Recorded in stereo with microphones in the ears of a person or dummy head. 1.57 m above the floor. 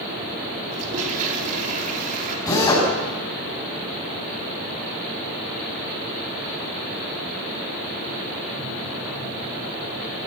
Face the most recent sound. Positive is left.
turn(degrees=20)  # may be behind; listen again after turning